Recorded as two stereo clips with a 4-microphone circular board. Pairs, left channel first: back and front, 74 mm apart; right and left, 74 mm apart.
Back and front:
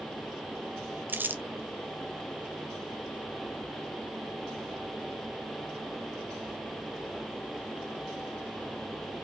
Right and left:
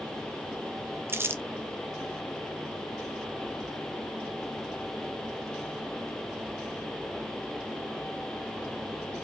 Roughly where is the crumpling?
Ahead left.